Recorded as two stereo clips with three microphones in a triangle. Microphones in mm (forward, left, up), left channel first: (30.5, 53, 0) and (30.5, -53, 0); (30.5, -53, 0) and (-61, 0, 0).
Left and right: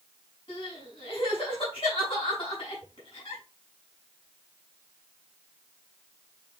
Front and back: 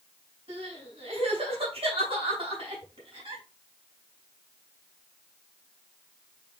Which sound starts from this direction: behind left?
Crying, at 0.5 s.